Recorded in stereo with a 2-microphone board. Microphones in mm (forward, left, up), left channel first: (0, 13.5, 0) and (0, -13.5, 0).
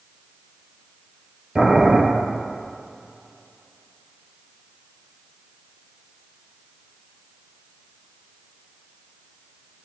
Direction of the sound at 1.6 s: 30° right (ahead or behind).